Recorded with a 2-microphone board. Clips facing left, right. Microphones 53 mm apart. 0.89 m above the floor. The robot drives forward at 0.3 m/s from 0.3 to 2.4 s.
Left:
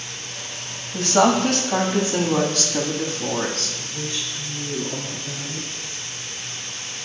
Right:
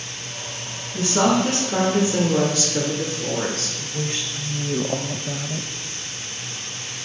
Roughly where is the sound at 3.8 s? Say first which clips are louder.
Right 2 dB; right.